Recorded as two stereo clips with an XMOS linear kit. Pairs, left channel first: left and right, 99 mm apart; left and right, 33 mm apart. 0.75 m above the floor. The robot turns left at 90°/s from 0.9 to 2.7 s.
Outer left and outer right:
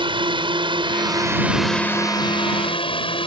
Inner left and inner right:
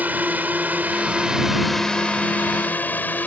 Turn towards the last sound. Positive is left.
turn(degrees=65)  # may be behind; listen again after turning